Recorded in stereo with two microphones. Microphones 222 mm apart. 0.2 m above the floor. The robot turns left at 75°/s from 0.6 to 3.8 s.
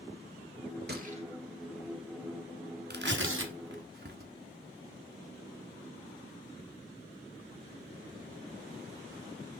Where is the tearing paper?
45° right (ahead or behind), 1.5 m; by 4.3 s 50° right (ahead or behind), 1.5 m.